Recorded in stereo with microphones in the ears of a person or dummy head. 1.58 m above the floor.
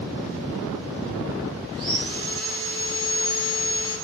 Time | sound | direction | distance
1.7 | sawing | 30° right (ahead or behind) | 7.5 m